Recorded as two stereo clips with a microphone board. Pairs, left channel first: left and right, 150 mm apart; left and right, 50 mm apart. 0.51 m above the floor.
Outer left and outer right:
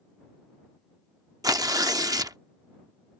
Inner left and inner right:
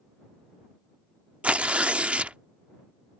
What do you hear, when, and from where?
1.4 s tearing paper: 25° right (ahead or behind)